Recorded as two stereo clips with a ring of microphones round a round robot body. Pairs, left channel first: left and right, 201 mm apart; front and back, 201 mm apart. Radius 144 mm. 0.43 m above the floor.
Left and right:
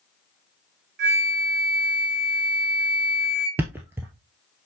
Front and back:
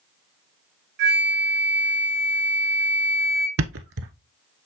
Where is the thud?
175° right, 0.8 m.